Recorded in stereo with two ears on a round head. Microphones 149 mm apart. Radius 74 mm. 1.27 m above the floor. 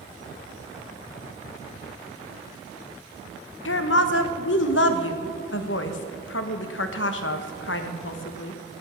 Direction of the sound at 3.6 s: 85° left.